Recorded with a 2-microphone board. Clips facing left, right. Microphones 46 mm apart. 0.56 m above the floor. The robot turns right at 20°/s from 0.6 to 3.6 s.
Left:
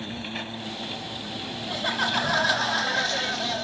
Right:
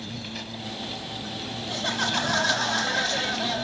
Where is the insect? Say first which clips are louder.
Left 3 dB; 150° left; by 3.6 s 150° right.